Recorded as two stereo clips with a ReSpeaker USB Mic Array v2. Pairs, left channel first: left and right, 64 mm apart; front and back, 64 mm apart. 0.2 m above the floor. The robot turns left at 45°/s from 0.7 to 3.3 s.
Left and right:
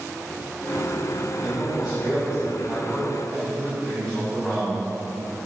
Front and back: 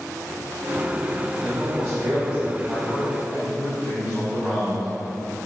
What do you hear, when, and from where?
1.4 s a man speaking: 110° right, 1.0 m; by 4.9 s 160° left, 1.0 m